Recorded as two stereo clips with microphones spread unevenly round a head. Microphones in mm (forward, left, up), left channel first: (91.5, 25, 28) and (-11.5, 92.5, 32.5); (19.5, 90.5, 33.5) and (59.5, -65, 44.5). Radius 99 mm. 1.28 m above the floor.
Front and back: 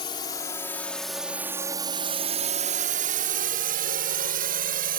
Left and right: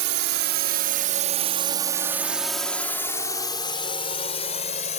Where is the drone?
95° right; by 5.0 s 160° left.